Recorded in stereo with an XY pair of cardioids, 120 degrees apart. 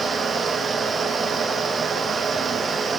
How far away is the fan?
About 1.2 m.